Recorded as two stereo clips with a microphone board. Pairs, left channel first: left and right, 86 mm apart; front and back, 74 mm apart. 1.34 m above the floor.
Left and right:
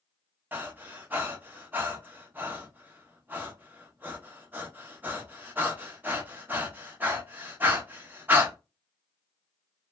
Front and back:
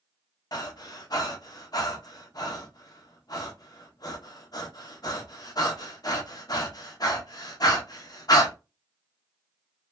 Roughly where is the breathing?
Ahead right.